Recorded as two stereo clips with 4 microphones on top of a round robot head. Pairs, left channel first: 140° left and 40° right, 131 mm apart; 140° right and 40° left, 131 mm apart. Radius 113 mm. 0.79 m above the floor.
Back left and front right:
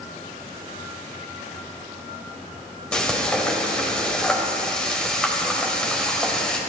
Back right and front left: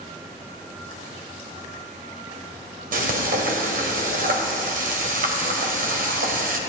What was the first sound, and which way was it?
Frying, 55° left.